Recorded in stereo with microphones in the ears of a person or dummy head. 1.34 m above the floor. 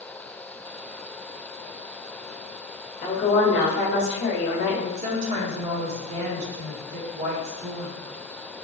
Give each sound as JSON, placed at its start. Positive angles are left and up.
{"t": 3.0, "sound": "a woman speaking", "side_deg": 55, "distance_m": 1.9}
{"t": 5.0, "sound": "a woman speaking", "side_deg": -40, "distance_m": 1.3}